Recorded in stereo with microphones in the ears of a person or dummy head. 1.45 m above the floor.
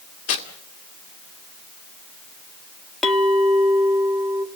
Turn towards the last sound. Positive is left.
turn(degrees=5)  # may be behind; listen again after turning